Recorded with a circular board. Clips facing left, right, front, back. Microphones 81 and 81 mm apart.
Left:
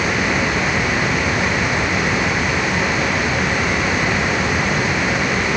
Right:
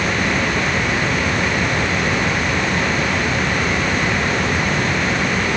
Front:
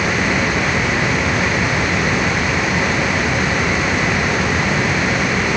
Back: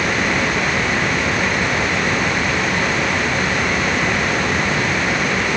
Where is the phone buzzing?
I don't hear a phone buzzing.